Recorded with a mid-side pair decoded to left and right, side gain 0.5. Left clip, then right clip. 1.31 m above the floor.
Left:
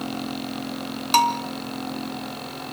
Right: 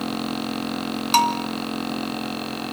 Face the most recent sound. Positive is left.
turn(degrees=0)